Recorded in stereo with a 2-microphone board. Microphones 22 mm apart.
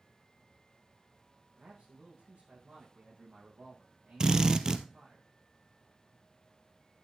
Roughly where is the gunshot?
I don't hear a gunshot.